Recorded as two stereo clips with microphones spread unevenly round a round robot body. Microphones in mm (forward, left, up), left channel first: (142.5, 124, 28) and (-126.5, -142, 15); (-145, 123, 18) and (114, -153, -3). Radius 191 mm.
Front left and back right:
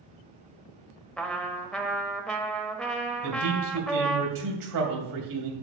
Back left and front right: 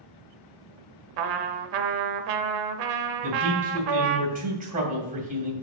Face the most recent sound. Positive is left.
turn(degrees=-110)